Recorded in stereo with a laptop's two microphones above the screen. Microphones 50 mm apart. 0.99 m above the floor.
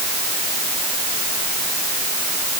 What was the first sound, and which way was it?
Only background noise.